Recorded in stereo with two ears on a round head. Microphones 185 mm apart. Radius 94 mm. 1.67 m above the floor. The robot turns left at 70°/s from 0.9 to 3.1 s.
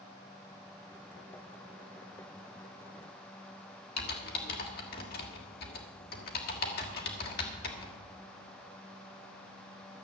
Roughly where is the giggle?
I don't hear a giggle.